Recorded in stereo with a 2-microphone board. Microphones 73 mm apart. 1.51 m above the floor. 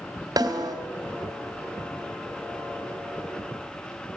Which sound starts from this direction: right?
A snare drum, at 0.4 s.